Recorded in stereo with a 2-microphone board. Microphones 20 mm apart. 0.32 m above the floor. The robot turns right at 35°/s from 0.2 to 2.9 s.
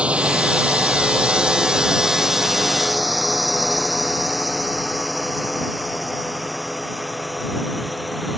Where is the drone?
75° right (ahead or behind); by 8.4 s centre (ahead or behind).